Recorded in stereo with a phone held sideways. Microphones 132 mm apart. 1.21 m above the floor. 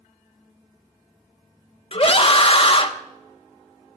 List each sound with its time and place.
1.9 s a scream: 45° left (ahead or behind), 1.1 m